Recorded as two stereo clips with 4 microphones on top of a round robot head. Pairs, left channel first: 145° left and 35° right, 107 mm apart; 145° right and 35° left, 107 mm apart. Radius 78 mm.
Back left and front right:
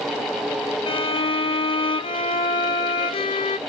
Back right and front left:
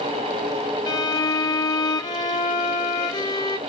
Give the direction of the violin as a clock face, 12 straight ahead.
6 o'clock.